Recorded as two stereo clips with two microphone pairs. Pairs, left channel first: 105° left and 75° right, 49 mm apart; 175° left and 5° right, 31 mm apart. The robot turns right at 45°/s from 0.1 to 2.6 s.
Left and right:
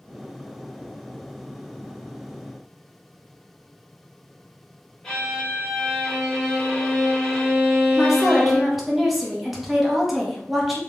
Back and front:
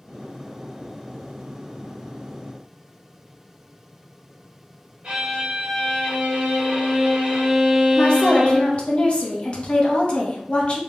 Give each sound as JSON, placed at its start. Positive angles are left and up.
{"t": 5.0, "sound": "a violin", "azimuth_deg": 35, "distance_m": 0.9}
{"t": 8.0, "sound": "a woman speaking", "azimuth_deg": -165, "distance_m": 0.7}